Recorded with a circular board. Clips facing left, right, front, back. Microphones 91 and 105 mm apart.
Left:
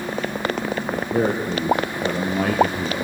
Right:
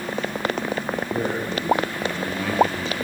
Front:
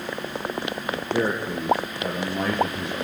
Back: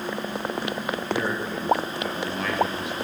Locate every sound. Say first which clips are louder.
0.9 s a man speaking: left 6 dB, front 4 dB; 65° left, 4.5 m; by 3.1 s 55° left, 3 m